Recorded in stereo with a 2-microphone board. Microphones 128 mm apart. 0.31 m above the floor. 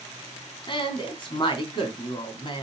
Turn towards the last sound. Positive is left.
turn(degrees=40)  # may be behind; listen again after turning